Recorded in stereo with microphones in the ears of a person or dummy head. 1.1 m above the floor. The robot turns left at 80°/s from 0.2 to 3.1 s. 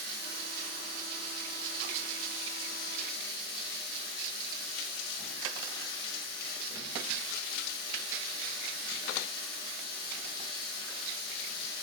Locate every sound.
0.0 s running water: 100° right, 1.1 m; by 11.8 s 30° left, 1.1 m